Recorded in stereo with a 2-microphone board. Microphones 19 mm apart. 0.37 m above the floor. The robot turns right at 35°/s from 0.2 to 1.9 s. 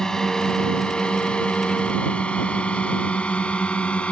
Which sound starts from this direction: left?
A drone, at 0.0 s.